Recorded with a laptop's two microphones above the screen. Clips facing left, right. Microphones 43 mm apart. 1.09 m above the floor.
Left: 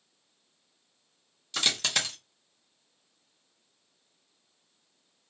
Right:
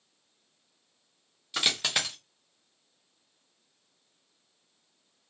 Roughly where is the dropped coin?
Centre.